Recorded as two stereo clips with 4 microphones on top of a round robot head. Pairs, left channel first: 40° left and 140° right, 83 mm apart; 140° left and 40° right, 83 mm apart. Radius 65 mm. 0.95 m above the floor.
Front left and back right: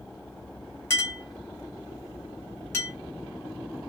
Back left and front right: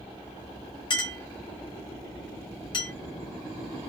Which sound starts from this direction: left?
A clink, at 0.9 s.